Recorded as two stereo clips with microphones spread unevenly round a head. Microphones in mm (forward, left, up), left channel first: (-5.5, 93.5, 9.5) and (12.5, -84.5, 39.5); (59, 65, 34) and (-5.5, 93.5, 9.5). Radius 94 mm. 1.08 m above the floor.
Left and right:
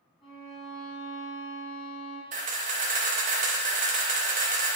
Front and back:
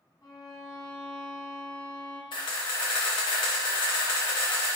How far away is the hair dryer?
No hair dryer in this recording.